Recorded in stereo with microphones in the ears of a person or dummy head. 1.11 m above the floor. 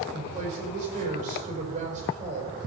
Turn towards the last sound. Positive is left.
turn(degrees=-35)  # may be behind; listen again after turning